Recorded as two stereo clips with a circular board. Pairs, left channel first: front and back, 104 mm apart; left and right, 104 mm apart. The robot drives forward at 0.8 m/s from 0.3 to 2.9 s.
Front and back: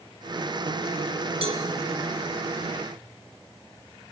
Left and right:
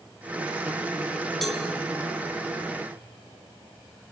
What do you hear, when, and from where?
1.4 s a cowbell: straight behind, 2.5 m